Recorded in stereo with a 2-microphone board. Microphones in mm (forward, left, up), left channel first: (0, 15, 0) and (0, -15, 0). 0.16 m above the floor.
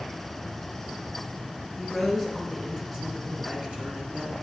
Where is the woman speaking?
Centre (ahead or behind), 2.5 m; by 4.3 s 40° right (ahead or behind), 2 m.